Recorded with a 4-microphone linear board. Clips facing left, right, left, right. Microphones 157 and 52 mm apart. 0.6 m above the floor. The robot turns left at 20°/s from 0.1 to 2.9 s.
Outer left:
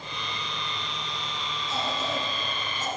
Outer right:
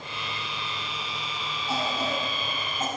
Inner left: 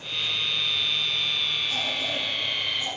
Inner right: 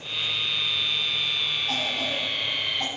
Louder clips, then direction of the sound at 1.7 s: Outer right 2 dB, inner right 1 dB; 75° right (ahead or behind).